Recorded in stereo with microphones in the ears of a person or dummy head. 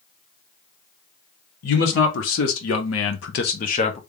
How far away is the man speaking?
About 1.3 m.